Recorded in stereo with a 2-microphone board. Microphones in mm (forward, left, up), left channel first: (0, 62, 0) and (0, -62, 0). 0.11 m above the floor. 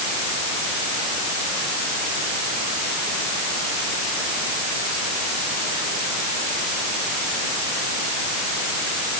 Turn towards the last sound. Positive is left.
No sound to turn to.